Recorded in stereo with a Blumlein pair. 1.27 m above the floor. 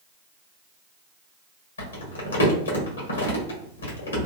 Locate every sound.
1.8 s crumpling: 70° left, 1.1 m